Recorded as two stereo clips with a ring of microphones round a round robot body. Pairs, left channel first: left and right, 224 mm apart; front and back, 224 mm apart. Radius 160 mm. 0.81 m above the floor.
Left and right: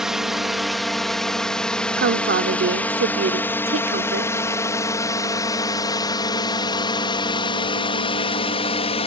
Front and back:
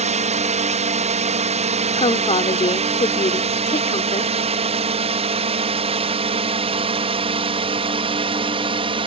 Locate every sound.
0.0 s a drone: 175° right; by 9.1 s 130° left
1.9 s a woman speaking: 60° right